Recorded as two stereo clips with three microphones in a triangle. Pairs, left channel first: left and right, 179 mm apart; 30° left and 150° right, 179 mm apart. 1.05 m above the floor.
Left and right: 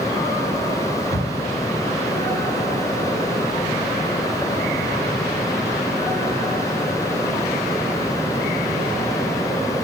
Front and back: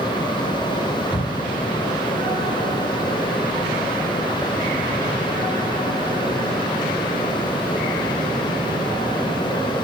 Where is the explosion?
75° right, 7 m.